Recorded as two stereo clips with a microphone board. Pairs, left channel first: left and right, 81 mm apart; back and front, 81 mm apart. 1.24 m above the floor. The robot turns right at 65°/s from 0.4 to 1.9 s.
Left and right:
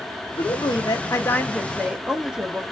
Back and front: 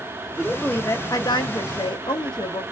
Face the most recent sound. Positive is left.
turn(degrees=-170)